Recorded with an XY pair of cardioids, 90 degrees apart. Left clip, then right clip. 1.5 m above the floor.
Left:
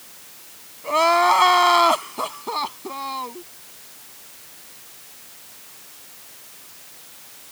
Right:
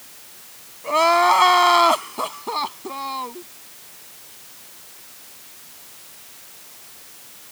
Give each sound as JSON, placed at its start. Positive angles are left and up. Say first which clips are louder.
{"t": 0.8, "sound": "crying", "louder": "right 1 dB", "azimuth_deg": -5}